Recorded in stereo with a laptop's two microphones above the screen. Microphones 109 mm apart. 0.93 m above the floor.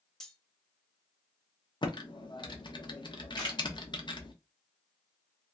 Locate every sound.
0.2 s cutlery clinking: 5° left (ahead or behind), 0.6 m
1.8 s typing on a keyboard: 45° left (ahead or behind), 0.7 m
3.4 s a camera shutter: 40° left (ahead or behind), 1.6 m